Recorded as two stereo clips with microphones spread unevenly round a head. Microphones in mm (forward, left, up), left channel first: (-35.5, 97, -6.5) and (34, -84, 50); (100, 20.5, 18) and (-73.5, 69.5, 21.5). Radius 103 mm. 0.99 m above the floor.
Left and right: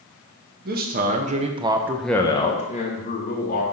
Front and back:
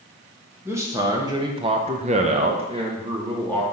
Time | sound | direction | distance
0.7 | a man speaking | 120° right | 1.2 m